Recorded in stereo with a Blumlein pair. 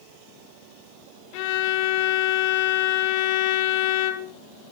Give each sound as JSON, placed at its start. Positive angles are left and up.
{"t": 1.3, "sound": "a violin", "azimuth_deg": 45, "distance_m": 1.8}